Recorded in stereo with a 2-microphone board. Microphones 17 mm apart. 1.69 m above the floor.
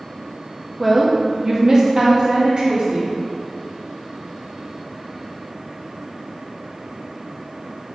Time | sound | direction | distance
0.8 | a woman speaking | 5° right (ahead or behind) | 1.2 m